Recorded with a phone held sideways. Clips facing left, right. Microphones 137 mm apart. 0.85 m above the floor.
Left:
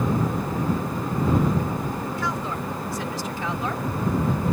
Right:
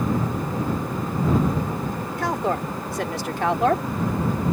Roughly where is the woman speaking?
Right.